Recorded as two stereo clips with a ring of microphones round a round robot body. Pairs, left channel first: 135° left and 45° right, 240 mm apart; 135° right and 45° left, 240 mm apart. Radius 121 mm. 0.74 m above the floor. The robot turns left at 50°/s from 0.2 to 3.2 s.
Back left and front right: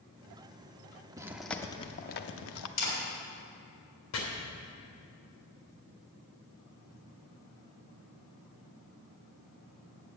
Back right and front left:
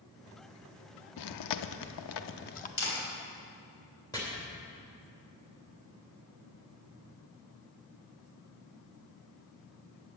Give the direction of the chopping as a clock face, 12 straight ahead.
7 o'clock.